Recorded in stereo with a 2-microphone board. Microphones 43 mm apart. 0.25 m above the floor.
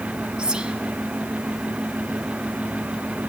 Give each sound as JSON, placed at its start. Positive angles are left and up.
{"t": 0.4, "sound": "whispering", "side_deg": -15, "distance_m": 1.9}